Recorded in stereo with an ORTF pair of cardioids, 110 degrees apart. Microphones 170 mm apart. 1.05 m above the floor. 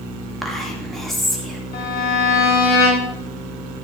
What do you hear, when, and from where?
0.4 s whispering: straight ahead, 2 m
1.7 s a violin: 70° left, 5 m